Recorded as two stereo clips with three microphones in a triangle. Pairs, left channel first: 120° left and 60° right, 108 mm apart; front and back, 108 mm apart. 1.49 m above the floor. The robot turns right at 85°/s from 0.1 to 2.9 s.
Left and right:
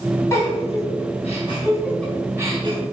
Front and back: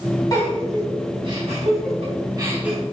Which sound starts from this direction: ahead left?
A giggle, at 0.3 s.